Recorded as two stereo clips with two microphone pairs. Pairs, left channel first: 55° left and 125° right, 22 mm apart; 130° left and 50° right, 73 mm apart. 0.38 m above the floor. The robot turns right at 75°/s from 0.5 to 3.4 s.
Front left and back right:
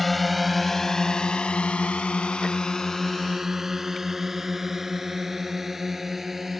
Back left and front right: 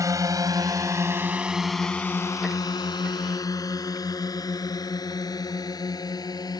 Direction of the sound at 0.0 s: 30° right.